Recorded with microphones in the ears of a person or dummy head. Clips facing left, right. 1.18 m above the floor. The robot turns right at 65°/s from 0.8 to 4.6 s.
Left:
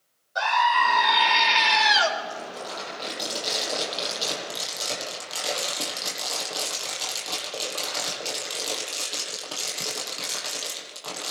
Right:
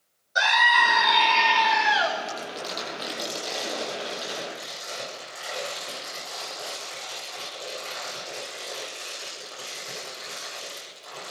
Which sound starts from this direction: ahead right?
Crumpling, at 2.3 s.